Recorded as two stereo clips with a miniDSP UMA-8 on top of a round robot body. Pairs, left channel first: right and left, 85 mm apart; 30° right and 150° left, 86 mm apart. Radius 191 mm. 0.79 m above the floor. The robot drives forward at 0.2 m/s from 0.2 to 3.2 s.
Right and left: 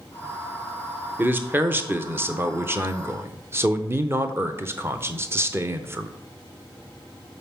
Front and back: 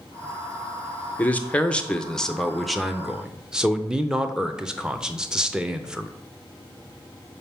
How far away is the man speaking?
About 0.9 m.